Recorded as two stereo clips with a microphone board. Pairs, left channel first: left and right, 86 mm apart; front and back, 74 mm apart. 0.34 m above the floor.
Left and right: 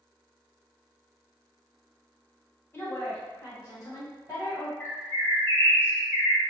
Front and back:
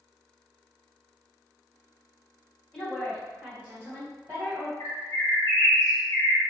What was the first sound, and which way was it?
A woman speaking, 70° left.